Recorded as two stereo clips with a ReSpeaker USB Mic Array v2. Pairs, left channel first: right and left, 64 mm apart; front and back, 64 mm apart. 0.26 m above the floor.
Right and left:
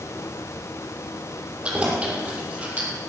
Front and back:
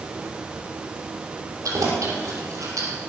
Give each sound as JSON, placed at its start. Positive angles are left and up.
{"t": 1.6, "sound": "keys jangling", "azimuth_deg": 160, "distance_m": 5.0}